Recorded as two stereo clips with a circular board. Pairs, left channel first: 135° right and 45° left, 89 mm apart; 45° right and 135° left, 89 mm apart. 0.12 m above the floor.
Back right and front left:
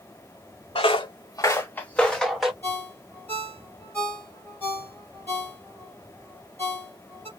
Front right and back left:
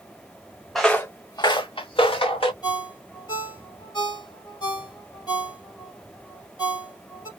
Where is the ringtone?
70° right, 2 m.